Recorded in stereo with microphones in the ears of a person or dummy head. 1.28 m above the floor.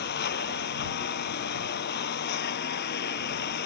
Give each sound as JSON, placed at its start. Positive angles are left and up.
{"t": 0.0, "sound": "a lawn mower", "side_deg": 60}